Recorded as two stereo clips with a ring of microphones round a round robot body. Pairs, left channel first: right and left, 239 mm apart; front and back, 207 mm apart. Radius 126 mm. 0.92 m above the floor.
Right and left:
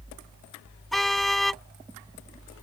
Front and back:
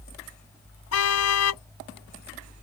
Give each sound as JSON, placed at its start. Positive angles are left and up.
{"t": 0.9, "sound": "a car horn", "azimuth_deg": 0}